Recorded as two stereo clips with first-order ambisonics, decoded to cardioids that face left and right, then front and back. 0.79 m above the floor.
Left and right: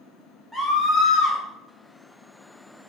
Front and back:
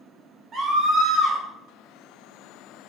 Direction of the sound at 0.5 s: 170° left.